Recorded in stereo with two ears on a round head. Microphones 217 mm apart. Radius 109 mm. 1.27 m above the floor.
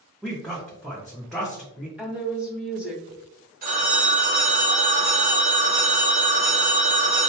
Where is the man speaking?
Centre (ahead or behind), 0.6 m.